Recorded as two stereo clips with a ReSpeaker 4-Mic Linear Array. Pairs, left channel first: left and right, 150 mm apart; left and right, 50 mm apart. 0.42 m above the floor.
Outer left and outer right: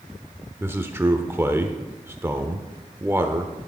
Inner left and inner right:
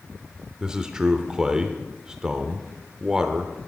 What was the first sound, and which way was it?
A man speaking, 15° right (ahead or behind).